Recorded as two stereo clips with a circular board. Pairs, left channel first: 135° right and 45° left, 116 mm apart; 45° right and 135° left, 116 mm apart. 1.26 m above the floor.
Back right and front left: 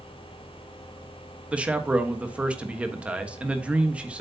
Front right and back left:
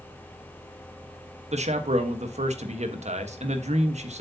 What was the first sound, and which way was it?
A man speaking, 125° left.